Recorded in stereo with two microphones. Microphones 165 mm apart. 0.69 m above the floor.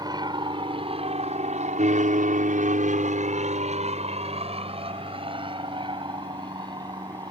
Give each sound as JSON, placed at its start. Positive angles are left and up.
{"t": 0.0, "sound": "an aircraft", "side_deg": -25}